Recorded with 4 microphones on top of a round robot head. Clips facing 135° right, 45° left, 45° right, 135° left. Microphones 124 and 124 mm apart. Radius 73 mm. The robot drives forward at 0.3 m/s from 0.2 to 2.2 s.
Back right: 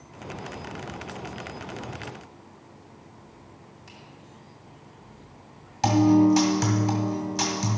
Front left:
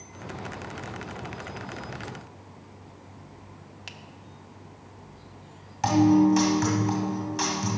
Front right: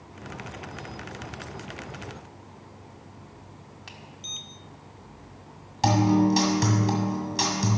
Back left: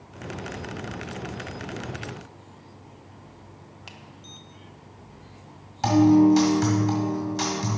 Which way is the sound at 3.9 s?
60° left.